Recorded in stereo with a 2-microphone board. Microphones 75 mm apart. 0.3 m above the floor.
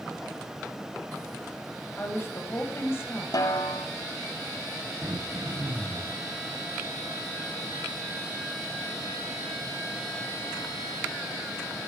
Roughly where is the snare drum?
Left.